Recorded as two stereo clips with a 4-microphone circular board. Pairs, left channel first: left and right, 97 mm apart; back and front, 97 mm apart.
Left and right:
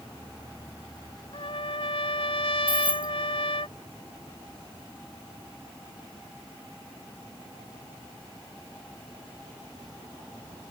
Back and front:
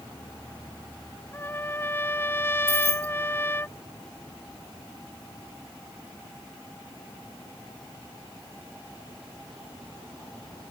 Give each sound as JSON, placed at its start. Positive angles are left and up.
{"t": 1.3, "sound": "a trumpet", "azimuth_deg": 115}
{"t": 2.7, "sound": "keys jangling", "azimuth_deg": -60}